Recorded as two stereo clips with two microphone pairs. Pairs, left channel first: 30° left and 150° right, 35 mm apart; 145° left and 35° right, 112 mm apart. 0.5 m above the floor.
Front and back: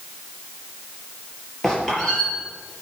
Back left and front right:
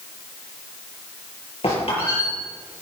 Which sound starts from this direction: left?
A squeak, at 1.6 s.